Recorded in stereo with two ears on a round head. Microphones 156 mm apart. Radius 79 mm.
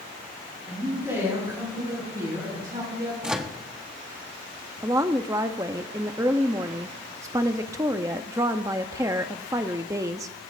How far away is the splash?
No splash in this recording.